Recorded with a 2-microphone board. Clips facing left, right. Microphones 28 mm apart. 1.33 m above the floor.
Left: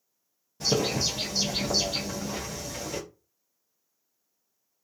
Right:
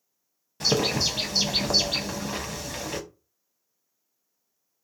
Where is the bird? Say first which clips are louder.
Right 2 dB; 70° right (ahead or behind), 0.7 m.